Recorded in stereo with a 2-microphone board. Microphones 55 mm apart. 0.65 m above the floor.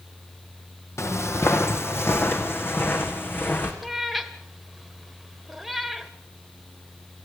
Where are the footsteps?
60° left (ahead or behind), 1.7 m; by 3.7 s 40° left (ahead or behind), 3.5 m.